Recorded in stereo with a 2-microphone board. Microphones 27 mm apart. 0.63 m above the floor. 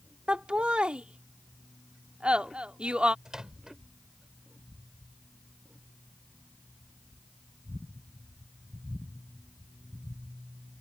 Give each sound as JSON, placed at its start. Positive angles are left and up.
{"t": 0.3, "sound": "laughter", "side_deg": -40}
{"t": 3.2, "sound": "a microwave", "side_deg": -20}